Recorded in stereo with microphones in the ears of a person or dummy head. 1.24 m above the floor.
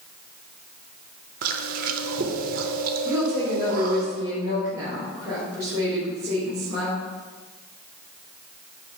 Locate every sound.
1.4 s chewing: 55° right (ahead or behind), 0.8 m
3.0 s a woman speaking: 25° right (ahead or behind), 3 m